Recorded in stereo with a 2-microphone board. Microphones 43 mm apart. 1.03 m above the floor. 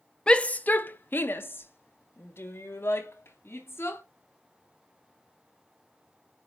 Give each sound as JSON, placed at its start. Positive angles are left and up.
{"t": 0.3, "sound": "a shout", "side_deg": 20, "distance_m": 0.6}